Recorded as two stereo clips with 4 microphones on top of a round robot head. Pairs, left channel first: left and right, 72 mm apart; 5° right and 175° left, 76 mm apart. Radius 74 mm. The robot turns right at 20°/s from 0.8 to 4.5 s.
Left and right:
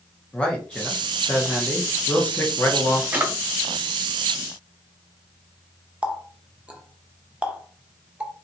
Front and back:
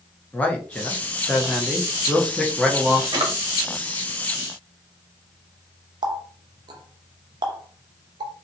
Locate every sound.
0.3 s a man speaking: 40° left, 1.0 m; by 3.0 s 85° left, 1.0 m
3.1 s a drawer: 155° right, 1.1 m
6.0 s a running tap: 165° right, 0.7 m